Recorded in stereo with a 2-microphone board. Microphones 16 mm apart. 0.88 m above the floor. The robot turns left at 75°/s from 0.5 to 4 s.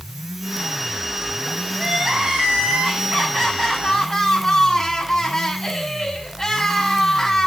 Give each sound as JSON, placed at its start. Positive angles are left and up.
{"t": 1.8, "sound": "crying", "azimuth_deg": -25, "distance_m": 7.5}